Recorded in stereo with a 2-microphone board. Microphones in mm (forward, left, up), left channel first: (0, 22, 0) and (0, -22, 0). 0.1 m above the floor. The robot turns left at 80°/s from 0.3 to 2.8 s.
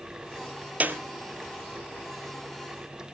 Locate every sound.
0.8 s a clap: 35° right (ahead or behind), 1.7 m; by 1.0 s 45° right (ahead or behind), 1.7 m